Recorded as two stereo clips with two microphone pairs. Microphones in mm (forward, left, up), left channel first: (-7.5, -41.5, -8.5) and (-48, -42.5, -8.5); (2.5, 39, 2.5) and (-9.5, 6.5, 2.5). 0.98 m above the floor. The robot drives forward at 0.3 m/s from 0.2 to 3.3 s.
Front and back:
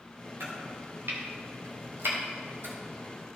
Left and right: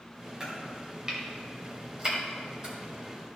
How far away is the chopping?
About 2 m.